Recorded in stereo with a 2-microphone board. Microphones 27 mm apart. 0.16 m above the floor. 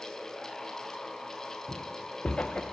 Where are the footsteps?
45° left (ahead or behind), 0.8 m.